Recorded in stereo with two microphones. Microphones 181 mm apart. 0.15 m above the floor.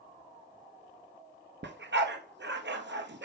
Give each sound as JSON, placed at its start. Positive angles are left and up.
{"t": 1.6, "sound": "a dog barking", "side_deg": -70, "distance_m": 0.9}